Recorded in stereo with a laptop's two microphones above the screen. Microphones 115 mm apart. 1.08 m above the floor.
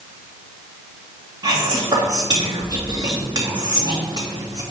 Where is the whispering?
35° right (ahead or behind), 2.5 m.